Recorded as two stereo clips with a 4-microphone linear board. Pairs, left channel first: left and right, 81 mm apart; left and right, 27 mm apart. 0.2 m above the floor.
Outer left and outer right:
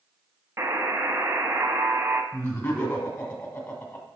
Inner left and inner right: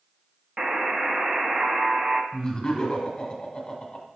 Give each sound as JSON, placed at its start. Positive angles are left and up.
{"t": 0.6, "sound": "a buzzer", "side_deg": -30, "distance_m": 0.6}
{"t": 2.3, "sound": "laughter", "side_deg": 15, "distance_m": 1.8}